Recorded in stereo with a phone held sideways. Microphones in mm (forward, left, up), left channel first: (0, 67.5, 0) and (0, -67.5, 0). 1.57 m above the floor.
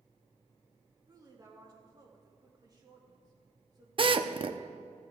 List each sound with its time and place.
1.1 s a woman speaking: 30° right (ahead or behind), 2 m
4.0 s a drill: 45° right (ahead or behind), 0.5 m